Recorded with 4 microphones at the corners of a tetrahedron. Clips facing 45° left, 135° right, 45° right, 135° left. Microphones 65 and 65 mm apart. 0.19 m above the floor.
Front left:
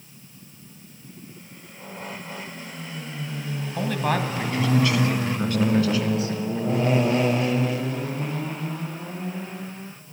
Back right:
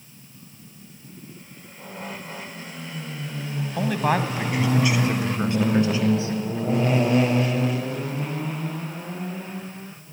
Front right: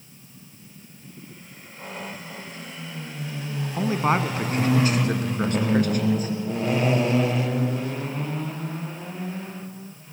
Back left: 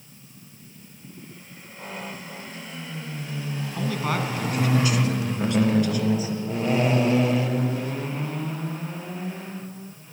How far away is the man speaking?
About 1.2 m.